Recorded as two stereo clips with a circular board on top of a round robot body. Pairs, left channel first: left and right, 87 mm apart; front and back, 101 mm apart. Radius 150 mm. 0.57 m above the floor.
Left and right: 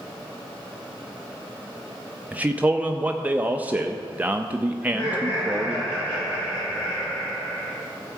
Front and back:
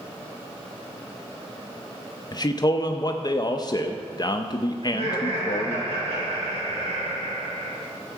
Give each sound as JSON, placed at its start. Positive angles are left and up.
{"t": 2.3, "sound": "a man speaking", "azimuth_deg": -25, "distance_m": 0.8}
{"t": 4.8, "sound": "laughter", "azimuth_deg": 155, "distance_m": 4.5}